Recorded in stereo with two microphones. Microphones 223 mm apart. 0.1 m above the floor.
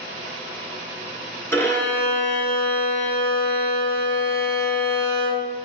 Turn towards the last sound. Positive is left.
turn(degrees=10)  # may be behind; listen again after turning